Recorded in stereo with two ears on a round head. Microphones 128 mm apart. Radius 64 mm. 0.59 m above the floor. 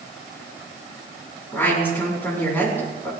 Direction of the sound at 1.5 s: 15° left (ahead or behind).